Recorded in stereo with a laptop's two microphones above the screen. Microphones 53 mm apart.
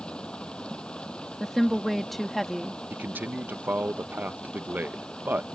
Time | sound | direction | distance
0.0 | running water | 20° left (ahead or behind) | ?
1.4 | a woman speaking | 5° left (ahead or behind) | ?
2.9 | a man speaking | 35° right (ahead or behind) | ?